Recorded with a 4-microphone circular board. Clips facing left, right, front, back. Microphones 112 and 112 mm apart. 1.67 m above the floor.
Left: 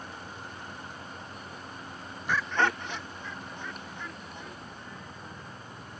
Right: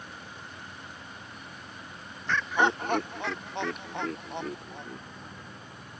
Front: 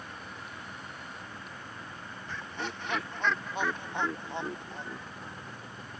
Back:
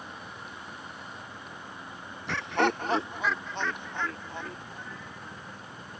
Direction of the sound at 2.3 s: 170° left.